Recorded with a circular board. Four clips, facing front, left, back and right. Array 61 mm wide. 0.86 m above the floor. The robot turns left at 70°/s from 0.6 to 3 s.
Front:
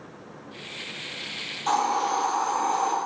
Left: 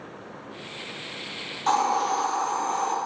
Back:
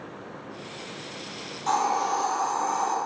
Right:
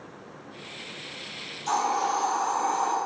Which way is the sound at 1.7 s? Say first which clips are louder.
Left 3 dB, even; 85° left.